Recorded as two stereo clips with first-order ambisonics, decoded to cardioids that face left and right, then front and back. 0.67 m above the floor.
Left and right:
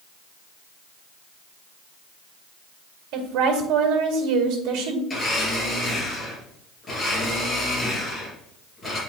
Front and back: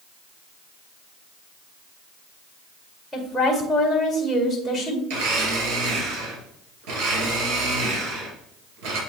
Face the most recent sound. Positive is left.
turn(degrees=170)